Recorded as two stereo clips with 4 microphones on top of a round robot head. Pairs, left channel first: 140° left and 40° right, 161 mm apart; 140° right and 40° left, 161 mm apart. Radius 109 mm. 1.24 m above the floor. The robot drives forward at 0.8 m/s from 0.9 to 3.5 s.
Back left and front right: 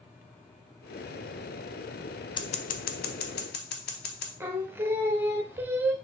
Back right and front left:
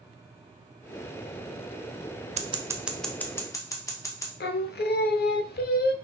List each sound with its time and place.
2.4 s scissors: 80° left, 0.6 m; by 4.3 s 150° left, 1.0 m
4.4 s singing: 120° right, 0.6 m